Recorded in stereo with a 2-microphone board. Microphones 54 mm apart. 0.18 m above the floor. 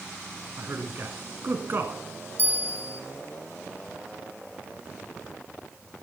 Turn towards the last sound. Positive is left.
turn(degrees=-45)  # may be behind; listen again after turning